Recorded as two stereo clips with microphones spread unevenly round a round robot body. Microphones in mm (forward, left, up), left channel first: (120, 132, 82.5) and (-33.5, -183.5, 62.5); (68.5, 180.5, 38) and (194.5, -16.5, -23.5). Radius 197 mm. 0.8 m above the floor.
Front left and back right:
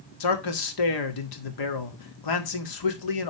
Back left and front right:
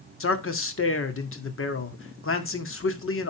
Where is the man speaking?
90° left, 2.0 m.